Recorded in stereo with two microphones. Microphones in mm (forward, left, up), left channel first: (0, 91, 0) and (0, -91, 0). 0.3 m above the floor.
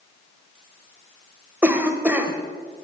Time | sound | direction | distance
1.6 | a cough | 10° right (ahead or behind) | 1.1 m